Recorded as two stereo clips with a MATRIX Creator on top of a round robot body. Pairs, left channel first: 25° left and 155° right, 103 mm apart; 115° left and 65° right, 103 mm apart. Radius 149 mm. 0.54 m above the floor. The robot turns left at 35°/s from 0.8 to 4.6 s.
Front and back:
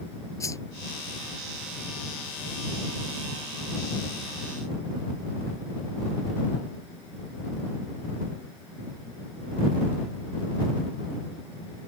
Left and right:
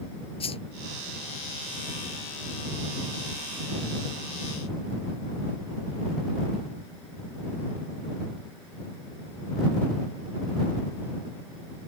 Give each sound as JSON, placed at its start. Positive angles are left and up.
{"t": 0.4, "sound": "a whoosh", "azimuth_deg": 85}